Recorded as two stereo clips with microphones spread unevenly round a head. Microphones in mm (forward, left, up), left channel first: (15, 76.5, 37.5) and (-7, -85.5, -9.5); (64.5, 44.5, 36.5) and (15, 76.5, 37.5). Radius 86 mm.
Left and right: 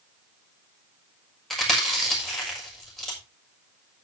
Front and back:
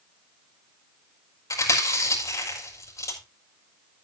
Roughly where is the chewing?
Ahead.